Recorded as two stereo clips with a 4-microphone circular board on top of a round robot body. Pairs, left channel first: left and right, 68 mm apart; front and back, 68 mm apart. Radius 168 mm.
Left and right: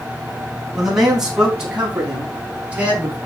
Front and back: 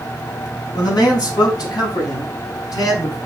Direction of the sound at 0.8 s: 5° right.